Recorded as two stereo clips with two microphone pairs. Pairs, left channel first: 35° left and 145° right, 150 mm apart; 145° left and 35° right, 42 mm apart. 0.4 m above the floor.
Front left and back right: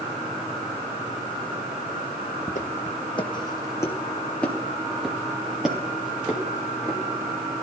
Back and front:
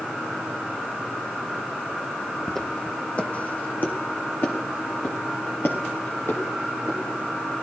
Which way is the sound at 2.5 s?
65° left.